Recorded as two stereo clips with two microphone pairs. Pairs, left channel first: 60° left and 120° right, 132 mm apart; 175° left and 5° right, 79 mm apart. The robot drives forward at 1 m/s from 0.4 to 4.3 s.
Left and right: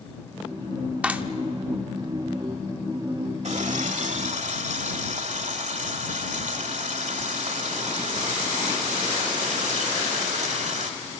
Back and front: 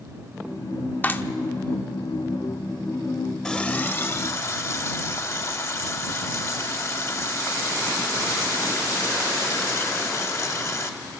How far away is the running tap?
About 1.1 m.